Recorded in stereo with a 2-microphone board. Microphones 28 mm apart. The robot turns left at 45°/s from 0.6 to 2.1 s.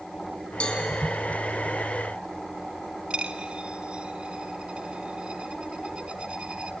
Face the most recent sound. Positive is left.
turn(degrees=-40)  # may be behind; listen again after turning